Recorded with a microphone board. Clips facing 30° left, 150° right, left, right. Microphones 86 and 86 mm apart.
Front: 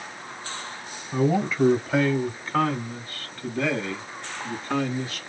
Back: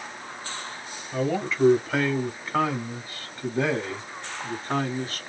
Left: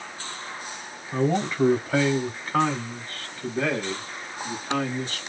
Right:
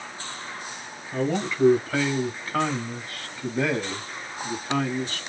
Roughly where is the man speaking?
Left.